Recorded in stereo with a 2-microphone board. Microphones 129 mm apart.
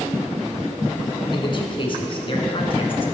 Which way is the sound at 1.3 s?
40° left (ahead or behind).